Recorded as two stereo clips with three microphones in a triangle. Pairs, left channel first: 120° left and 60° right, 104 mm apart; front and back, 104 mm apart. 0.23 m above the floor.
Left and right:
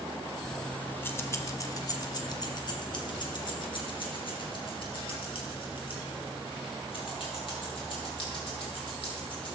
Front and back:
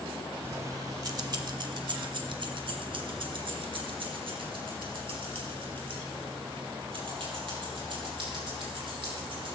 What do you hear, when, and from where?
0.4 s keys jangling: 155° right, 0.8 m; by 9.6 s 150° left, 5.5 m